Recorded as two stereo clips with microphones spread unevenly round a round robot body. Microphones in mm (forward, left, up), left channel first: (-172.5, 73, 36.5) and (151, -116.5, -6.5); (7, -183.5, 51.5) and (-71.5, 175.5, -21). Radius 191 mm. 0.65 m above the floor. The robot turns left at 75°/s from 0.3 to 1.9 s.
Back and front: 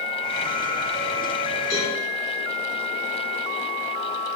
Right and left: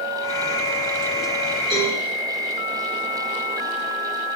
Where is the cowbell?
100° left, 3.5 m; by 2.0 s 85° left, 3.5 m.